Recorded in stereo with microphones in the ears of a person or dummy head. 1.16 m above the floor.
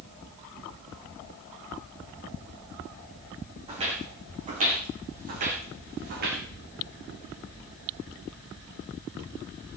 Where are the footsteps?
20° right (ahead or behind), 2.5 m; by 6.4 s 40° right (ahead or behind), 3.5 m.